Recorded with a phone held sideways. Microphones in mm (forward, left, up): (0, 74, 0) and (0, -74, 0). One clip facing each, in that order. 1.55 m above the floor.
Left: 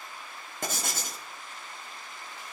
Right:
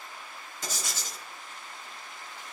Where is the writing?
55° left (ahead or behind), 1.1 m.